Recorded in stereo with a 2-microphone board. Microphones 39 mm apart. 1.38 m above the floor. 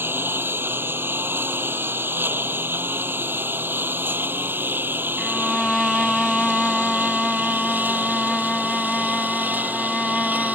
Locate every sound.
0.0 s a lawn mower: 80° right; by 10.6 s 50° right (ahead or behind)
5.2 s a violin: 5° left (ahead or behind)